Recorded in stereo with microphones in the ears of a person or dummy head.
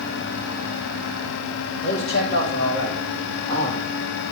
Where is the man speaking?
60° left (ahead or behind), 4 m; by 3.8 s 35° left (ahead or behind), 1.9 m.